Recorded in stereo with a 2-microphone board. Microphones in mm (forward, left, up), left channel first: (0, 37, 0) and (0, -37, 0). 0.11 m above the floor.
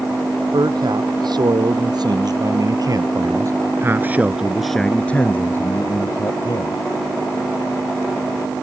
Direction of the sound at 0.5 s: 75° right (ahead or behind).